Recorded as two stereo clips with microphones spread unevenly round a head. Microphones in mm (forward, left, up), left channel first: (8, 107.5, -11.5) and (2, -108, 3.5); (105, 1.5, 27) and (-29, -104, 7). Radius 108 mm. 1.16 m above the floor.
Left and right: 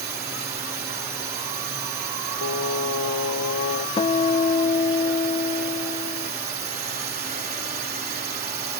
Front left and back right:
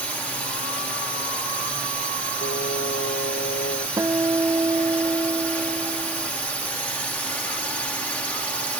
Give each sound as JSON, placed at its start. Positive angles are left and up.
{"t": 0.0, "sound": "a drone", "azimuth_deg": -45}
{"t": 2.4, "sound": "singing", "azimuth_deg": 90}
{"t": 4.0, "sound": "a guitar", "azimuth_deg": 145}